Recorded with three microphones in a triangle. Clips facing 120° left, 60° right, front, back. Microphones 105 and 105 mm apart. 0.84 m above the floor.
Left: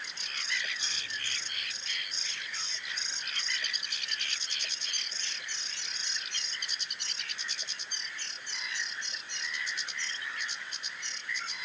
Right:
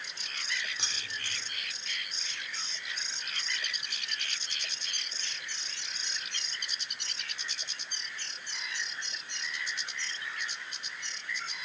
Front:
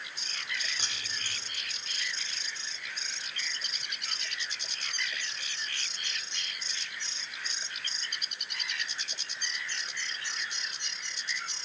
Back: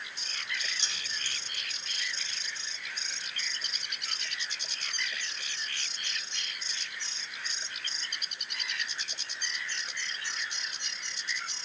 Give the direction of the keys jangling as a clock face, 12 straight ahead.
1 o'clock.